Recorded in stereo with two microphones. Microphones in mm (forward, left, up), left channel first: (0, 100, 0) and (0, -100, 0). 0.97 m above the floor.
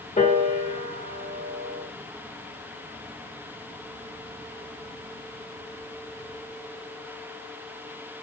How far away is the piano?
About 1.2 m.